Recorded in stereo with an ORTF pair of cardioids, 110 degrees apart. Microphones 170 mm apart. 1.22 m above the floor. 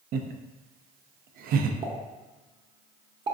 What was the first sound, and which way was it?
Laughter, 65° right.